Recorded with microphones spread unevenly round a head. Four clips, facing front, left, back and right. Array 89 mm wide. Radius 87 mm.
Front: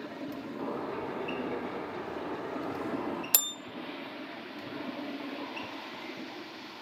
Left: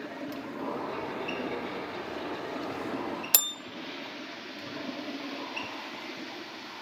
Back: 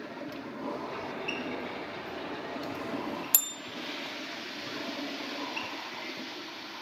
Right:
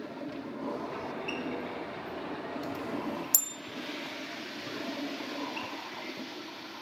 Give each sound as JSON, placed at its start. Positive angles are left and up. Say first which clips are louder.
{"t": 0.6, "sound": "a bird", "louder": "left 2 dB, front 1 dB", "azimuth_deg": -5, "distance_m": 3.5}
{"t": 3.3, "sound": "a bell", "louder": "left 6 dB, front 2 dB", "azimuth_deg": 105, "distance_m": 0.5}